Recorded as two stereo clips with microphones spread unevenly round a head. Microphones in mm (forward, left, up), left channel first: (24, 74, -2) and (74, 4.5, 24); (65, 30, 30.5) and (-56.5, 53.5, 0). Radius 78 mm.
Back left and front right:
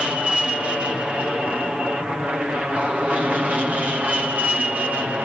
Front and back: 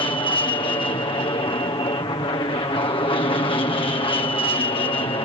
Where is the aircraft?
35° left; by 5.2 s 25° left.